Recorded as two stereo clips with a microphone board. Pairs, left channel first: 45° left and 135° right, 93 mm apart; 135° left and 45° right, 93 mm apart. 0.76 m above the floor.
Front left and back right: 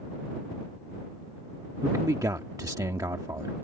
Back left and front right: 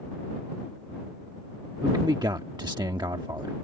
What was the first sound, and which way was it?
A man speaking, 85° right.